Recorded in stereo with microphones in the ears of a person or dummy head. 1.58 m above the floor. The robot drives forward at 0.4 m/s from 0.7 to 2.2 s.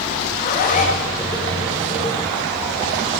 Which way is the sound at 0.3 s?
40° left (ahead or behind).